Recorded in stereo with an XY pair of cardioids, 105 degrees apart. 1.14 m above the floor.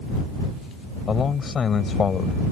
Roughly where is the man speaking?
Ahead left.